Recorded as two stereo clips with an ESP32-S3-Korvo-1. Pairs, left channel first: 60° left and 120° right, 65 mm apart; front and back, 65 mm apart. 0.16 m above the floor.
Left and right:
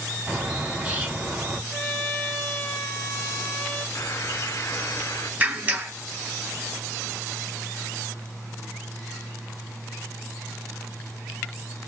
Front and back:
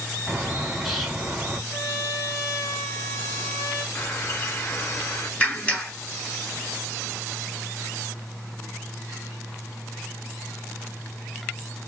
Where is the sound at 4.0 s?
30° left, 1.2 m.